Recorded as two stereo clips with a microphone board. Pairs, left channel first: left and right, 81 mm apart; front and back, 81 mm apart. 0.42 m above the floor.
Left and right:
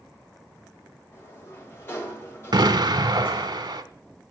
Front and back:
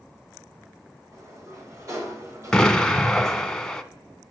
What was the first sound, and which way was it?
A sliding door, 140° left.